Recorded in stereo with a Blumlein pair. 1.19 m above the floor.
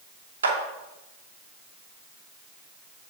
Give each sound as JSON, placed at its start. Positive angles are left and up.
{"t": 0.4, "sound": "a clap", "azimuth_deg": -70, "distance_m": 2.5}